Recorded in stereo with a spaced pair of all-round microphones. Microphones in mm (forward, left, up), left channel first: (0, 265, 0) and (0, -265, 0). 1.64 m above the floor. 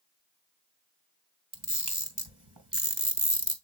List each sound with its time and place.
1.5 s a camera shutter: 35° right (ahead or behind), 2.5 m